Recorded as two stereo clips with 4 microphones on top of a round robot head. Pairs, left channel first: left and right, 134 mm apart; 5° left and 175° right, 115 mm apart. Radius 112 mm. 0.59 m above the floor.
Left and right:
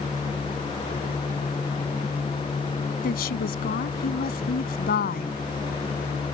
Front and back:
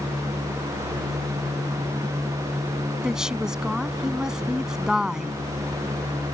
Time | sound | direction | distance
3.0 | a woman speaking | 100° left | ?